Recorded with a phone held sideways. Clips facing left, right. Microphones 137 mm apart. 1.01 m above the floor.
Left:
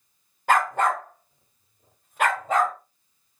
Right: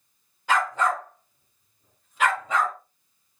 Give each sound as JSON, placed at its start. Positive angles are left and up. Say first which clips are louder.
{"t": 0.5, "sound": "a dog barking", "louder": "left 2 dB", "side_deg": 50, "distance_m": 0.9}